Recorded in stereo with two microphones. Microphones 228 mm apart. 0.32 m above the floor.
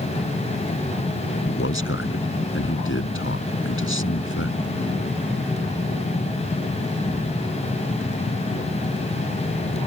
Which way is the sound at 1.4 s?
65° left (ahead or behind).